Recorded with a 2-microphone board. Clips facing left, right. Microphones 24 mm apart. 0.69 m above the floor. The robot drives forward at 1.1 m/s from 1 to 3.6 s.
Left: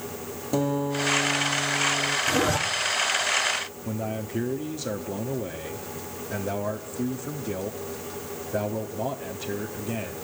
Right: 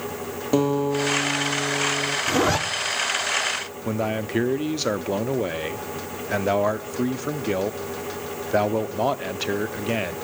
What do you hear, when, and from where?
0.5 s a guitar: 30° right (ahead or behind), 4 m; by 2.2 s 40° right (ahead or behind), 3 m
2.3 s a zipper: 30° right (ahead or behind), 1.7 m; by 2.6 s 35° right (ahead or behind), 1.5 m
3.9 s a man speaking: 60° right (ahead or behind), 1.0 m